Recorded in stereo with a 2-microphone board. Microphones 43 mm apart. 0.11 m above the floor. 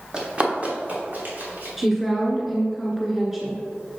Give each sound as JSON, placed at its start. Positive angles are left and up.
{"t": 0.1, "sound": "running footsteps", "side_deg": -20, "distance_m": 2.0}
{"t": 1.8, "sound": "a woman speaking", "side_deg": -5, "distance_m": 1.1}